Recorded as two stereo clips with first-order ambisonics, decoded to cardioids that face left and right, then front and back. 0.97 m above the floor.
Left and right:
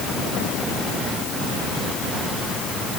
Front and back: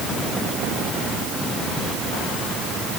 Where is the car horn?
I don't hear a car horn.